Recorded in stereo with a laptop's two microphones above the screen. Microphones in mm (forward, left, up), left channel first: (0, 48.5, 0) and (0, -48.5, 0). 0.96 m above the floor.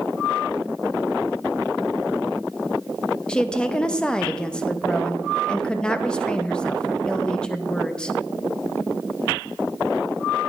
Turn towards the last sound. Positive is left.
turn(degrees=10)  # may be behind; listen again after turning